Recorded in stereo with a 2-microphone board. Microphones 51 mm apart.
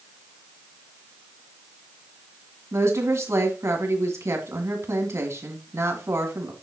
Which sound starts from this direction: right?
A woman speaking, at 2.7 s.